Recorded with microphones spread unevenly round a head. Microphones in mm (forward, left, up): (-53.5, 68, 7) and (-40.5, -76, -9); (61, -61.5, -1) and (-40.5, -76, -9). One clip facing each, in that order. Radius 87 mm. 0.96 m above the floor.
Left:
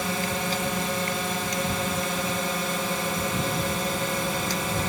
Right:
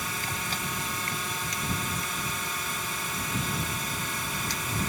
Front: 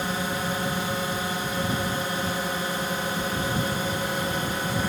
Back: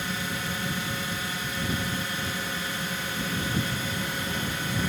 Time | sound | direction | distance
0.0 | a drone | 70° left | ?